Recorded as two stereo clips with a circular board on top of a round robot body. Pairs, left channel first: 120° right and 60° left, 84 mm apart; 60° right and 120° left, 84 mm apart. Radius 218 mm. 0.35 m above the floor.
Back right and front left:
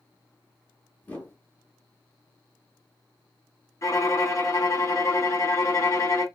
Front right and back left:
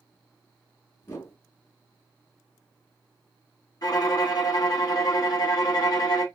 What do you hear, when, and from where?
1.0 s a whoosh: 75° right, 1.5 m
3.8 s a violin: 85° right, 1.8 m